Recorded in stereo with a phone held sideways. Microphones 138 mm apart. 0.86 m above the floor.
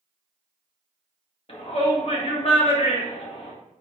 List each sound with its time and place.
1.5 s a shout: 45° left (ahead or behind), 1.1 m